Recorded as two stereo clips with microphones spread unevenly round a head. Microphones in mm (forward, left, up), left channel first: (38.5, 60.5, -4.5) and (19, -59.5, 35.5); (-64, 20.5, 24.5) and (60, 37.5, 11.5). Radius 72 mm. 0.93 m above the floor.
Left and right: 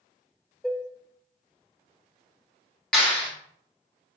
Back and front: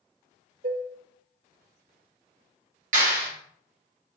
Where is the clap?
Straight ahead, 1.9 m.